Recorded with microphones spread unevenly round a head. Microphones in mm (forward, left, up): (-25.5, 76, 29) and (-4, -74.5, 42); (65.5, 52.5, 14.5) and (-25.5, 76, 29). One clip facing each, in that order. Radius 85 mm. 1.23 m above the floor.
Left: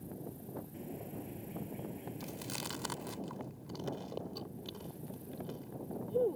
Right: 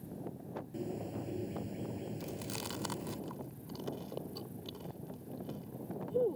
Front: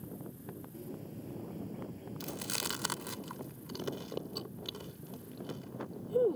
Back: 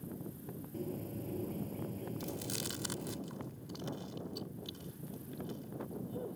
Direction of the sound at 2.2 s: 5° left.